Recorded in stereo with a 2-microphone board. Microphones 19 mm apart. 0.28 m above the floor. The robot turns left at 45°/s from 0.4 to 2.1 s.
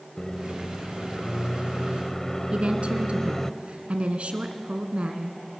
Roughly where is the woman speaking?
Right.